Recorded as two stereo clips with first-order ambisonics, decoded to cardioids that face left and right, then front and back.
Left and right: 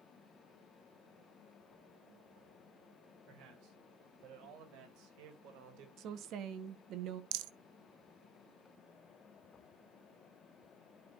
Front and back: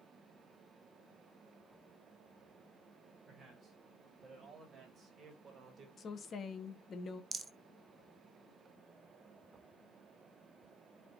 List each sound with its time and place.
3.3 s a man speaking: 115° right, 4 m
6.0 s a woman speaking: 60° right, 1.0 m
7.3 s a rattle: 105° right, 0.5 m